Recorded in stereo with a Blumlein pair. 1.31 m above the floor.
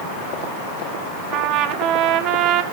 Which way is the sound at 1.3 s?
35° right.